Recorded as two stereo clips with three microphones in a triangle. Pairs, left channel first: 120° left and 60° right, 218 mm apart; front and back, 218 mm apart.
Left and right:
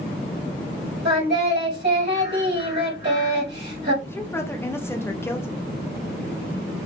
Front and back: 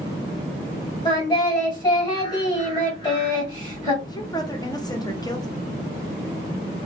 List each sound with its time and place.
1.1 s singing: 65° right, 1.8 m
4.0 s a woman speaking: 50° left, 0.6 m